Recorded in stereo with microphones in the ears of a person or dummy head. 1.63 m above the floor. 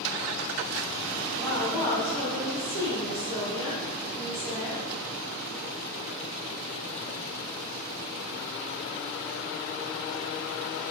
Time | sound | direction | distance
1.4 | a woman speaking | 20° left (ahead or behind) | 1.9 m